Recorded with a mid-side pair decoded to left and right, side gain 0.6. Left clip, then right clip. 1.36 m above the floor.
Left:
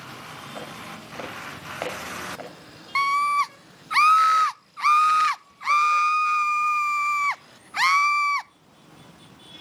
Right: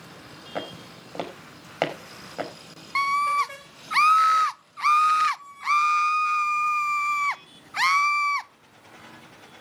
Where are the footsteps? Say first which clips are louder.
Right 6 dB; 40° right, 4.5 m.